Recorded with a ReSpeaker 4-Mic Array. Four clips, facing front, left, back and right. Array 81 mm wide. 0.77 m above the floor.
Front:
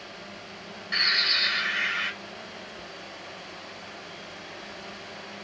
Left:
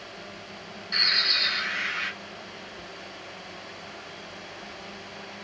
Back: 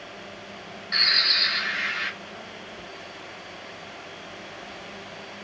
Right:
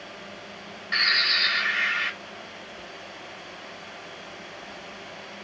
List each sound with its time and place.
0.9 s a bird: 85° right, 1.2 m